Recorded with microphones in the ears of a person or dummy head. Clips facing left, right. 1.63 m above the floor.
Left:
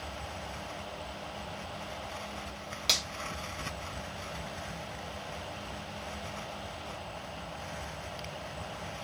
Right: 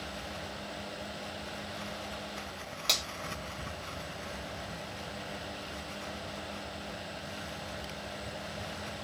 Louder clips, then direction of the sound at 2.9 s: Even; 10° left (ahead or behind).